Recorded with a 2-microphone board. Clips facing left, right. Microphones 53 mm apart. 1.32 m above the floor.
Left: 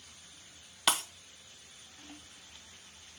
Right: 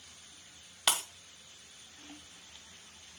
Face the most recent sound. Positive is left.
turn(degrees=0)  # may be behind; listen again after turning